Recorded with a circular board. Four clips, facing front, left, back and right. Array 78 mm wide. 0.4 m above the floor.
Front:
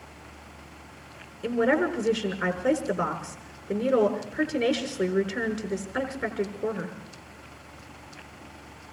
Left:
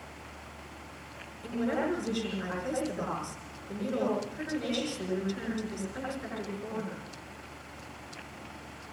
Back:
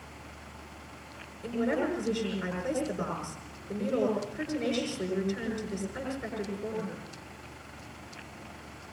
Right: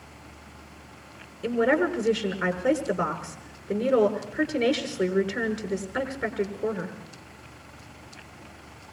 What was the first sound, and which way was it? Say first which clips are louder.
A woman speaking: right 8 dB, front 6 dB; 45° right.